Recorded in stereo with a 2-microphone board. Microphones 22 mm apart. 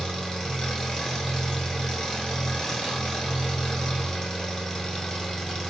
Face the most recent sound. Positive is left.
turn(degrees=35)  # may be behind; listen again after turning